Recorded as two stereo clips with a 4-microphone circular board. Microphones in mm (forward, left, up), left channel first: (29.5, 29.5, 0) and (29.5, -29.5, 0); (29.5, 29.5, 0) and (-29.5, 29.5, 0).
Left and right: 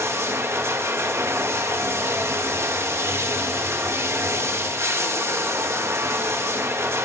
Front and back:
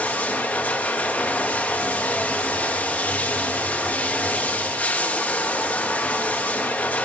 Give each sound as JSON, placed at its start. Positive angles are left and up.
{"t": 0.0, "sound": "running water", "azimuth_deg": -60, "distance_m": 0.8}